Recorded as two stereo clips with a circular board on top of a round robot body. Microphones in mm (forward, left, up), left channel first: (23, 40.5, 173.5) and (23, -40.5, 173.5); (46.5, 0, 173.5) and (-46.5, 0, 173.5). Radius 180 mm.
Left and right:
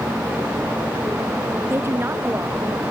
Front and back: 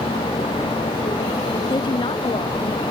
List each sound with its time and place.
1.7 s a woman speaking: 30° right